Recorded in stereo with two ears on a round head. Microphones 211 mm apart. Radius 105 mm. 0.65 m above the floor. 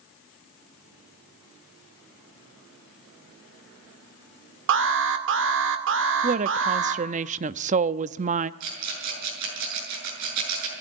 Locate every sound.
4.7 s an alarm: 55° right (ahead or behind), 2 m
6.2 s a woman speaking: 30° right (ahead or behind), 0.6 m
8.6 s a rattle: 85° right, 7 m